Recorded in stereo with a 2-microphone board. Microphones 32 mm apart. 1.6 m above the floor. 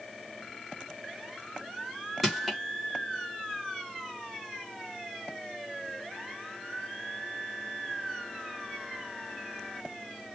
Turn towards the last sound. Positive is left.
turn(degrees=0)  # may be behind; listen again after turning